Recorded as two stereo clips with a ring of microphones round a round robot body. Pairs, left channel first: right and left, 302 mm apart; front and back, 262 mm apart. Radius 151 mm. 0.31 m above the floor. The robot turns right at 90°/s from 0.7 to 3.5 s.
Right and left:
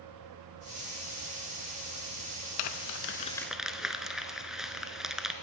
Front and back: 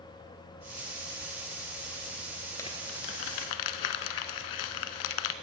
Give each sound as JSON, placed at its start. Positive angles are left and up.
{"t": 2.6, "sound": "crumpling", "azimuth_deg": -80, "distance_m": 0.7}